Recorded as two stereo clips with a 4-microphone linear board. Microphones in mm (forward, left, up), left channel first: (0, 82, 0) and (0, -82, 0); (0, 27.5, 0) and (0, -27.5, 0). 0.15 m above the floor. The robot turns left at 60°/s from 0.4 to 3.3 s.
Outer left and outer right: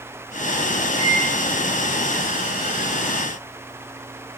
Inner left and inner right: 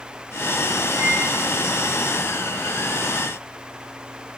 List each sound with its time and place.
1.0 s a microwave: 35° right (ahead or behind), 1.1 m; by 1.3 s 40° right (ahead or behind), 1.1 m